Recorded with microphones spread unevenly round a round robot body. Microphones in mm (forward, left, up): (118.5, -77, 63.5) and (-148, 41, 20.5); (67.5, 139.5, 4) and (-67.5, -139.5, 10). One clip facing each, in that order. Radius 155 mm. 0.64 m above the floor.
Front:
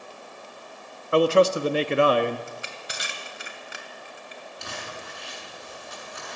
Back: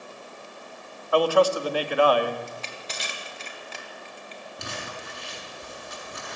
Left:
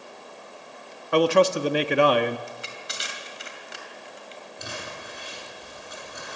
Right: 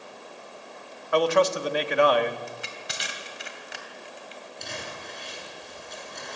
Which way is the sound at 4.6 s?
145° left.